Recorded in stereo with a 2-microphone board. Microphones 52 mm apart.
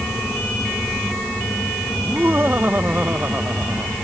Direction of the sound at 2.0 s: 40° right (ahead or behind).